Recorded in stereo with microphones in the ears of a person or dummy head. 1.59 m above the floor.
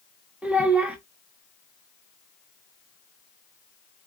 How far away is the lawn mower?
I don't hear a lawn mower.